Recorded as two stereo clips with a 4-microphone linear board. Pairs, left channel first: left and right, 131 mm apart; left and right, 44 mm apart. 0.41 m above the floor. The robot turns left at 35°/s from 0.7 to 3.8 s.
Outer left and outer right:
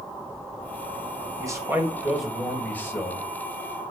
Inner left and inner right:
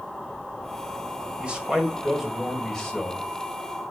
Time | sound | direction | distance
1.4 | a man speaking | 150° right | 1.9 m